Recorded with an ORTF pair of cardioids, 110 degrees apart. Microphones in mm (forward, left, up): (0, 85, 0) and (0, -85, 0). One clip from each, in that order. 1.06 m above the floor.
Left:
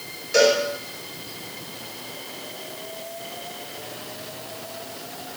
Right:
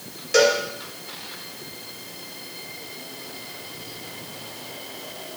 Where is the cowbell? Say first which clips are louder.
Even; 30° right, 3 m.